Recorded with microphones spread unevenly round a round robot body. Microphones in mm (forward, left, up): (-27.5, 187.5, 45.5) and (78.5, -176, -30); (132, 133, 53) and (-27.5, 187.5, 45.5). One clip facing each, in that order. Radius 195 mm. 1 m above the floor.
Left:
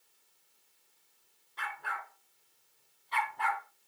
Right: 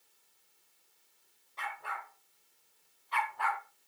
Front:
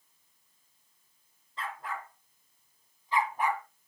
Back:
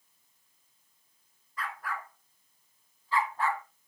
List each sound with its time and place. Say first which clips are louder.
1.6 s a dog barking: even, even; 45° left, 3.5 m; by 3.6 s 55° left, 1.9 m